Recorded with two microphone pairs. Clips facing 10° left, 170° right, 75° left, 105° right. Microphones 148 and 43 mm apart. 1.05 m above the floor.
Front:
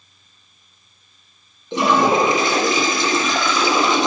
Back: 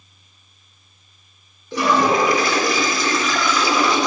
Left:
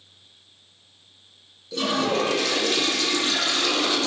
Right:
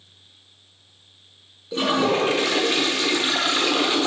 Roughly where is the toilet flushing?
Ahead right.